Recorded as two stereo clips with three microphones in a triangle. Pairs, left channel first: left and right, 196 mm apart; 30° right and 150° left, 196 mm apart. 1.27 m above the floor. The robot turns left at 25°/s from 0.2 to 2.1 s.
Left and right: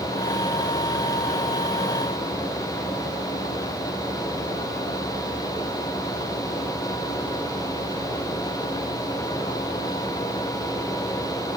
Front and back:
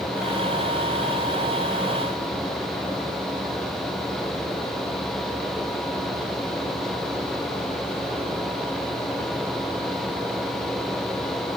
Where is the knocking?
I don't hear knocking.